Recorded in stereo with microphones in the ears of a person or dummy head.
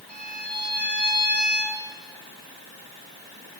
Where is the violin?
10° left (ahead or behind), 2.5 m.